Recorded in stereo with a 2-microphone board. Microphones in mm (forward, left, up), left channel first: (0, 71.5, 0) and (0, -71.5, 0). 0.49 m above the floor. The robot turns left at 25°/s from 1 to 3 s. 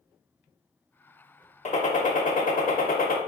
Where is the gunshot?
125° left, 0.6 m; by 3.2 s 90° left, 0.6 m.